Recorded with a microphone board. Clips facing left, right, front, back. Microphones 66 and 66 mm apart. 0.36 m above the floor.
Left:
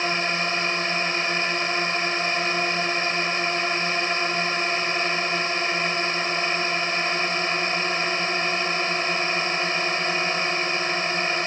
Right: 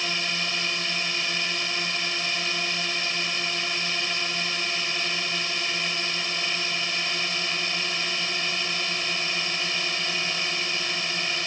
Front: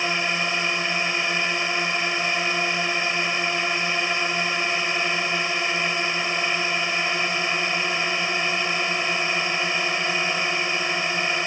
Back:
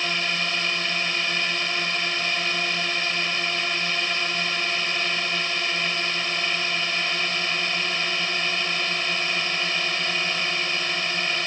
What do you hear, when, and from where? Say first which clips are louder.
0.0 s a drone: left 5 dB, front 2 dB; 60° left